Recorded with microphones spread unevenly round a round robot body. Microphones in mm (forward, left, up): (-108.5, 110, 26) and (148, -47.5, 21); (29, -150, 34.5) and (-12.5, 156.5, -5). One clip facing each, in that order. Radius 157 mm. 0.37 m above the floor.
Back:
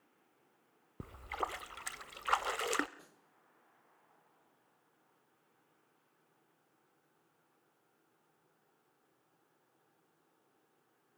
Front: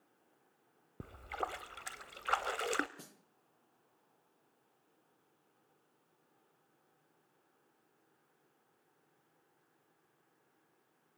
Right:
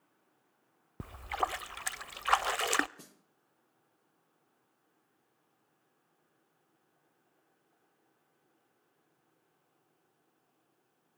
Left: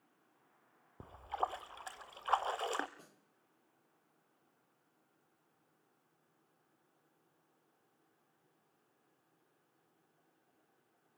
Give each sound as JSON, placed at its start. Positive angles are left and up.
{"t": 1.0, "sound": "a splash", "azimuth_deg": -130, "distance_m": 0.8}
{"t": 3.0, "sound": "a snare drum", "azimuth_deg": -40, "distance_m": 2.0}